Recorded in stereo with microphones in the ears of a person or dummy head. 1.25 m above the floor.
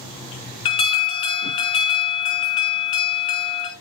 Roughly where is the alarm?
Left.